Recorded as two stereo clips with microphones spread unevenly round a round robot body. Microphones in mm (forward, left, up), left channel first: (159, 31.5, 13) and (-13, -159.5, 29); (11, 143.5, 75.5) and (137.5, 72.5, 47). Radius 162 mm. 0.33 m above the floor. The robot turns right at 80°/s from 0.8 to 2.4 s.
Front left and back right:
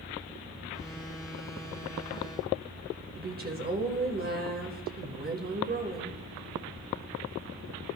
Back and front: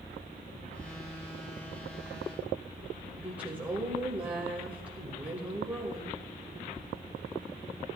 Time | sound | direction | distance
3.2 | a woman speaking | 95° right | 1.3 m